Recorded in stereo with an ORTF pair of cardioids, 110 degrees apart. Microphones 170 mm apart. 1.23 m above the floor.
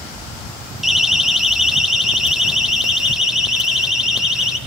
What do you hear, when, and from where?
0.8 s a siren: straight ahead, 3 m; by 4.6 s 5° right, 5 m